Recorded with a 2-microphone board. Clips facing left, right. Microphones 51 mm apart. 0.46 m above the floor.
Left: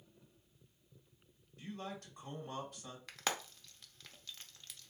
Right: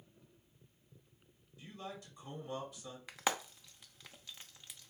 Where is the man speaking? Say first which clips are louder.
Left 2 dB; 60° left (ahead or behind), 2.5 m.